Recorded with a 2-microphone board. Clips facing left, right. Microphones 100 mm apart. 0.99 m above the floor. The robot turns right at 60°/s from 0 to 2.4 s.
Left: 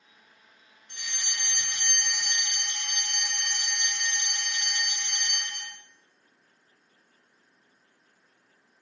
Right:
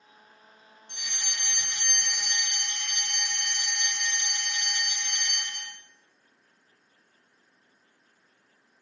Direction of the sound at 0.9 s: 25° right (ahead or behind).